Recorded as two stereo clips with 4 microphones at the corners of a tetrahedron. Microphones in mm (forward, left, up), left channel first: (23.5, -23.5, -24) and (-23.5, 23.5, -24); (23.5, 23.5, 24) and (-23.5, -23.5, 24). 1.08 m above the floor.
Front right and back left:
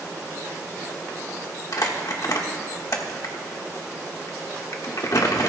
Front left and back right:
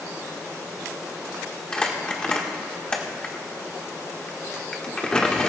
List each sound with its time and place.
1.7 s crumpling: 30° right, 1.4 m